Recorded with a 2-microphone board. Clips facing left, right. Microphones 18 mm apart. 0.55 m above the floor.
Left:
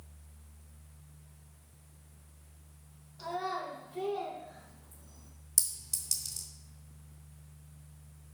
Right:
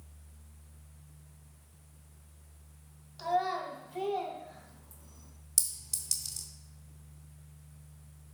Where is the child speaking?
80° right, 3 m; by 5.3 s 75° right (ahead or behind), 4 m.